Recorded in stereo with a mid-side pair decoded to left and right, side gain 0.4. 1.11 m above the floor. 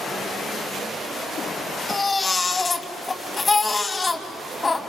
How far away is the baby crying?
About 2.5 m.